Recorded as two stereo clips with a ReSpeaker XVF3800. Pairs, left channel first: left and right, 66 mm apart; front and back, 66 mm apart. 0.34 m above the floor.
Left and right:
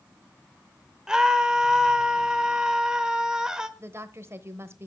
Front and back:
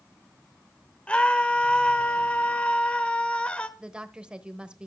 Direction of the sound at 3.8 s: 110° right.